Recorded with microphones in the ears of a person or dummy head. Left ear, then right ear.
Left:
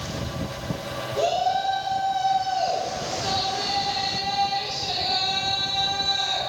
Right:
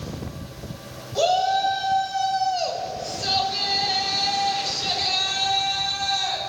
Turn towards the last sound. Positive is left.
turn(degrees=-80)